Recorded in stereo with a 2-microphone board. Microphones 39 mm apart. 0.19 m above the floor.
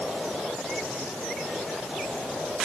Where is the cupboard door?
I don't hear a cupboard door.